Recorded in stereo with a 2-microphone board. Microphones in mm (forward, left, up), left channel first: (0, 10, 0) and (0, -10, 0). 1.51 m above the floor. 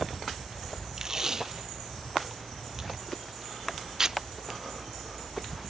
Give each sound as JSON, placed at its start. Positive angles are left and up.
{"t": 1.0, "sound": "tape being pulled", "side_deg": -25, "distance_m": 0.8}